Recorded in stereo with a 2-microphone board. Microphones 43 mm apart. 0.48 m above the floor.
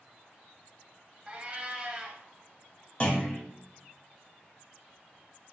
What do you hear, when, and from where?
1.3 s a cat meowing: 25° right (ahead or behind), 0.6 m
3.0 s a clunk: 25° left (ahead or behind), 1.0 m